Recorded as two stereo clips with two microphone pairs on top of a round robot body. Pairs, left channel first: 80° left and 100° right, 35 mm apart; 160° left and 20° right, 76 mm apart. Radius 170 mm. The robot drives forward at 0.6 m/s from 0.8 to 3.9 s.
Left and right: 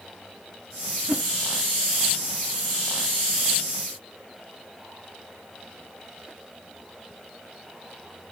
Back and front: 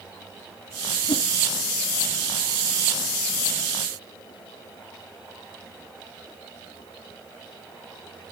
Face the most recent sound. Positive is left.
turn(degrees=180)